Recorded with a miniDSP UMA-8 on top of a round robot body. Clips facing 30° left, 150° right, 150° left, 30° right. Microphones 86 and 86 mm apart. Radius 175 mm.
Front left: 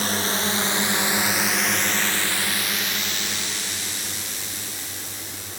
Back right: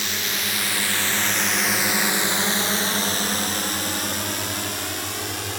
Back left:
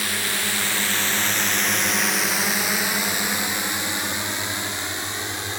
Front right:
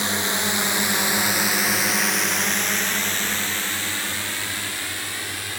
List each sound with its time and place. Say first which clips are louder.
0.0 s a drone: front left 4 dB, front right 3 dB; 20° left; by 5.6 s 145° right